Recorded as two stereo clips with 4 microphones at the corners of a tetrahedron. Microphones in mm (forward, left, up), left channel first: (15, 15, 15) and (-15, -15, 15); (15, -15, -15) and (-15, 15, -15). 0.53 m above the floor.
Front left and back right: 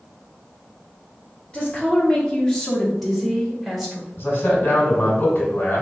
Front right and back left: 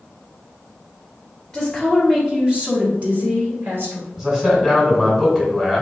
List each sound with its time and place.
1.5 s a woman speaking: 30° left, 1.0 m; by 4.1 s 145° left, 1.5 m
4.2 s a man speaking: 65° left, 1.3 m